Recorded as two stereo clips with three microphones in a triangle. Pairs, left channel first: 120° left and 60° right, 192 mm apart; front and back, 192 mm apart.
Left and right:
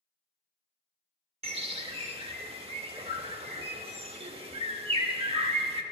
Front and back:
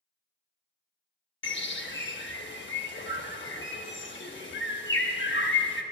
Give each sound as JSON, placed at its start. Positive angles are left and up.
{"t": 1.4, "sound": "a bird", "azimuth_deg": -5, "distance_m": 0.6}